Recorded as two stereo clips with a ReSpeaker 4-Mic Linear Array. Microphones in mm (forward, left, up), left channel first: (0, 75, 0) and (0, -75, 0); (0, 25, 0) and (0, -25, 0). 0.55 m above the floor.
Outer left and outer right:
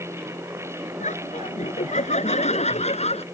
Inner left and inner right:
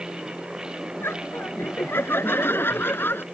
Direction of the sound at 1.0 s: 55° left (ahead or behind).